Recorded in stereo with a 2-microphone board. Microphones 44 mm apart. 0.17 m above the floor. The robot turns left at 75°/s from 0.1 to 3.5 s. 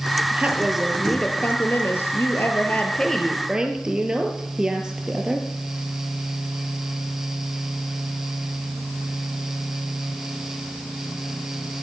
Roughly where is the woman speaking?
Behind right.